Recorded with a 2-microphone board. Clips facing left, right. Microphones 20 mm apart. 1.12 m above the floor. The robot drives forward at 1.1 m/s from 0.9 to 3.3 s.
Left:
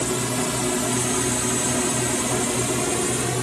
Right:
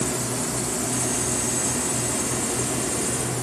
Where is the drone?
40° left (ahead or behind); by 3.4 s 65° left (ahead or behind).